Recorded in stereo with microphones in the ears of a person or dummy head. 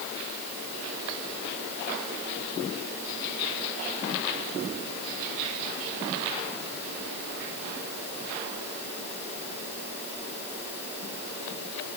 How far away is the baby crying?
I don't hear a baby crying.